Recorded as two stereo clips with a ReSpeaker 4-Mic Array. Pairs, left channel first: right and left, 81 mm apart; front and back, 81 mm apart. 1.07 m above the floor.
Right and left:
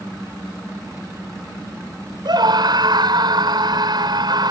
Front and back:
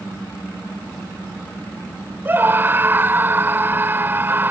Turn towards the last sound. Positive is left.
turn(degrees=115)